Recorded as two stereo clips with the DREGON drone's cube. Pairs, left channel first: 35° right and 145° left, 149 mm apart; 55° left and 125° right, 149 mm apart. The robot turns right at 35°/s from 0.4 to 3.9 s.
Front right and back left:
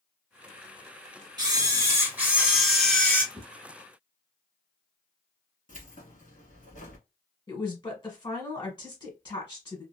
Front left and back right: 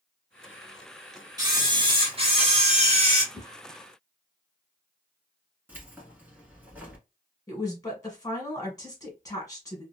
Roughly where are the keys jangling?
Ahead right.